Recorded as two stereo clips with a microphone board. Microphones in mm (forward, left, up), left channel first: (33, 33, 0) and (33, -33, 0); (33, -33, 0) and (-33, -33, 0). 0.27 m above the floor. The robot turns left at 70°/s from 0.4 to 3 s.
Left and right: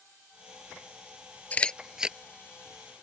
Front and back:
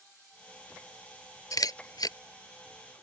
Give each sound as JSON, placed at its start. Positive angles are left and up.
{"t": 1.5, "sound": "a camera shutter", "azimuth_deg": 25}